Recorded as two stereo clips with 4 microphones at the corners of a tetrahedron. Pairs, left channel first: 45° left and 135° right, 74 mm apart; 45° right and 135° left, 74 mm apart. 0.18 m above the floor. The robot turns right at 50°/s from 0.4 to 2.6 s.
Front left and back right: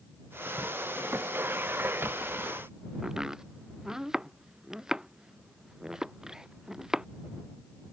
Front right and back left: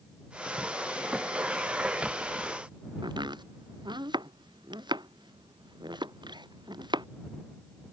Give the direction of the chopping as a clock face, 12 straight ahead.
7 o'clock.